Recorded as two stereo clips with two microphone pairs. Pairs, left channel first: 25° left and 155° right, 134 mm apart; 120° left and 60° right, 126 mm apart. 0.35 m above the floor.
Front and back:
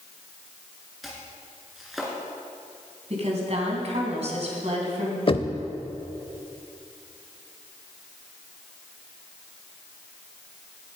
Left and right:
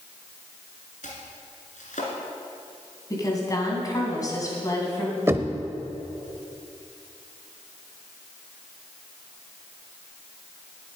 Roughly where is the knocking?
Ahead.